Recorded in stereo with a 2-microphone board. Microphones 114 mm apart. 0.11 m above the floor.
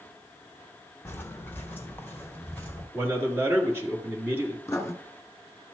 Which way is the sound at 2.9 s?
20° right (ahead or behind).